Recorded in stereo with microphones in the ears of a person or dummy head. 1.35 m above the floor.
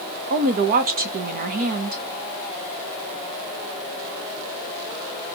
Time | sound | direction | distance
0.3 | a woman speaking | 45° right (ahead or behind) | 1.1 m